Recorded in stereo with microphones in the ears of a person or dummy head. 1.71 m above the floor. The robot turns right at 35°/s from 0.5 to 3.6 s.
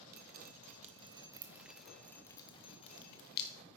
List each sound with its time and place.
0.1 s dripping: 45° right (ahead or behind), 1.1 m; by 3.6 s 60° left (ahead or behind), 1.1 m